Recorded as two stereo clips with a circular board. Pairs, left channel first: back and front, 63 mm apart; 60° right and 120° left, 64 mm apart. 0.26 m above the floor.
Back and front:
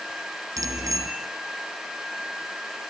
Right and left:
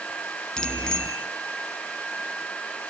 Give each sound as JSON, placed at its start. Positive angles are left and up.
{"t": 0.6, "sound": "a bicycle bell", "azimuth_deg": 15, "distance_m": 3.5}